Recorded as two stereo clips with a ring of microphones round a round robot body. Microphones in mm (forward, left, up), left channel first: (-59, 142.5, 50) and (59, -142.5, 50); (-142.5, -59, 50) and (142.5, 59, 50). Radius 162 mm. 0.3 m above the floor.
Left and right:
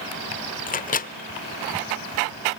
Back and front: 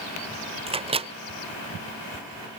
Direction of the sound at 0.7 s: 75° left.